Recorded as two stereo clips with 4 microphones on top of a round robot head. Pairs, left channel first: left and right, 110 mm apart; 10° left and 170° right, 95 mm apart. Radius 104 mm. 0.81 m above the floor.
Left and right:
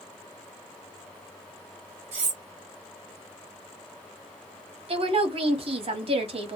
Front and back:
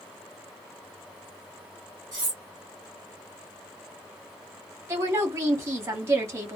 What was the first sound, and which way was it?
Cutlery clinking, 110° right.